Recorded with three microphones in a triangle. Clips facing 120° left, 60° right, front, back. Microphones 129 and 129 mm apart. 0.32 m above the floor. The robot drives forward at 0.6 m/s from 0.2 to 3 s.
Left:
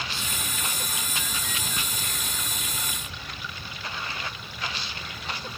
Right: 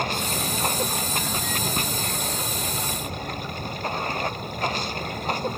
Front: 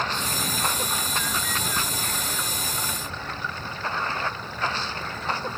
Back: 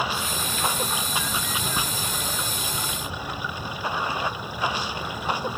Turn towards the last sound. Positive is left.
turn(degrees=-105)